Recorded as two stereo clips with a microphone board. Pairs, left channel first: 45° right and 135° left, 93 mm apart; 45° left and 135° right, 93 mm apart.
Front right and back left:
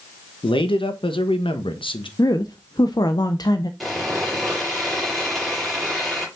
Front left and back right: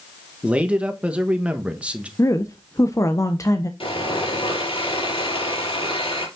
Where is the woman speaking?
5° right, 0.7 m.